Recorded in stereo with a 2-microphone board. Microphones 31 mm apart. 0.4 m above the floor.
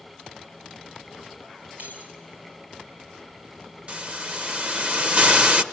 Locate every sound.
1.8 s keys jangling: 65° right (ahead or behind), 5.5 m
3.9 s a hiss: 40° right (ahead or behind), 1.0 m